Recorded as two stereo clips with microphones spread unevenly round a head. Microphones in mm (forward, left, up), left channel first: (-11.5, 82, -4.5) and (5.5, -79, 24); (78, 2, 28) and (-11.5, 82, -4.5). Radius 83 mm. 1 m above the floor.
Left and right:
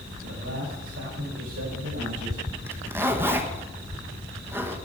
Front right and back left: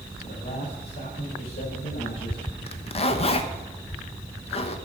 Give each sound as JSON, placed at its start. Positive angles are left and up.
{"t": 0.2, "sound": "a man speaking", "azimuth_deg": -75, "distance_m": 6.0}
{"t": 2.7, "sound": "a zipper", "azimuth_deg": 0, "distance_m": 1.1}